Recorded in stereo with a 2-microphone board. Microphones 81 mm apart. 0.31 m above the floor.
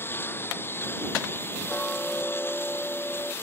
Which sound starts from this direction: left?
A lawn mower, at 0.0 s.